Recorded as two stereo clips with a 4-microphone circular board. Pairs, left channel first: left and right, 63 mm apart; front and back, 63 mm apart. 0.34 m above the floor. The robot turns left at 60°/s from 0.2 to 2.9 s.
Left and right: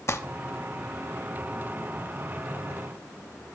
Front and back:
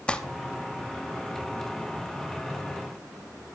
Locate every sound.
0.1 s crumpling: 65° left, 0.8 m